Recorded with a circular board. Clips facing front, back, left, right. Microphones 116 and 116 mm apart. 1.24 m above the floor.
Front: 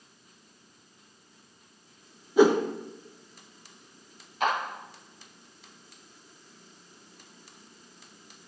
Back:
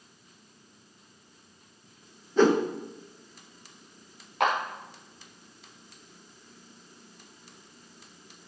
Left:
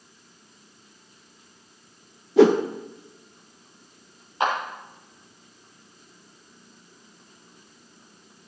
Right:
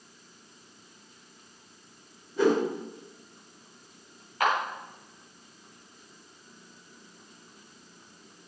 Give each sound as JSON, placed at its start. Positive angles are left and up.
{"t": 2.4, "sound": "a whoosh", "azimuth_deg": 80, "distance_m": 0.7}
{"t": 4.4, "sound": "a clap", "azimuth_deg": 155, "distance_m": 3.5}